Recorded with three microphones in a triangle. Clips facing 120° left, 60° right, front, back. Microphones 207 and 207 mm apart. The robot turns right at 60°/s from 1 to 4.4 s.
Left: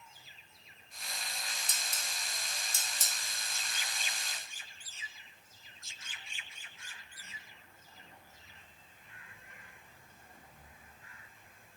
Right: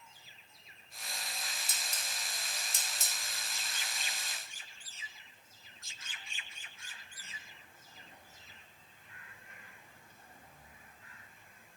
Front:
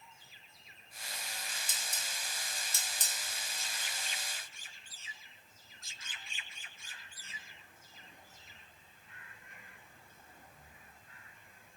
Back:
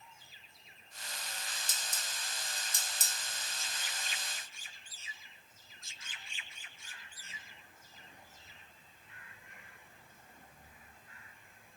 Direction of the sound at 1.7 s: Straight behind.